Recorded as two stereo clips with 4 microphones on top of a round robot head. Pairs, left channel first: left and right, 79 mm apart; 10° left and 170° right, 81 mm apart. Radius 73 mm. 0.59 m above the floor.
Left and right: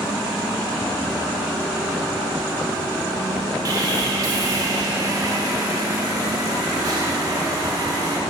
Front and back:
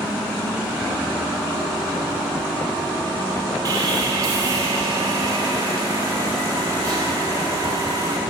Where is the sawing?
125° right, 2.5 m.